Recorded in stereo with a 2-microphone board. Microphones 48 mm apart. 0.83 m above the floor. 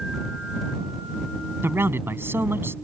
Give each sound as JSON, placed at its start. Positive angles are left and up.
{"t": 1.6, "sound": "a man speaking", "side_deg": -50}